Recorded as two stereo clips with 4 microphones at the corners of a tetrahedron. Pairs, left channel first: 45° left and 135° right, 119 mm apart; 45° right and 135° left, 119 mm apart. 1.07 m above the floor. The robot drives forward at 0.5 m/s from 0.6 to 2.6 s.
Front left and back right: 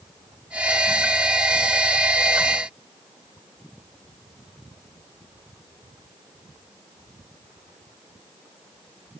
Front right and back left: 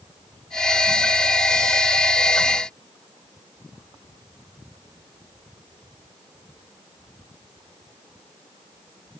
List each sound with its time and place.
Only background noise.